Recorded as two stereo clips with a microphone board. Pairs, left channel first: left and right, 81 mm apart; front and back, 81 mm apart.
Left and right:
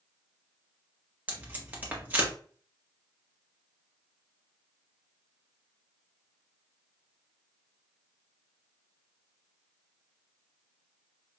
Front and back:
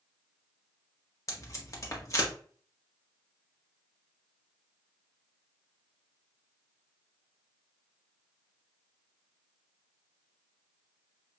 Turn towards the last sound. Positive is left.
turn(degrees=-30)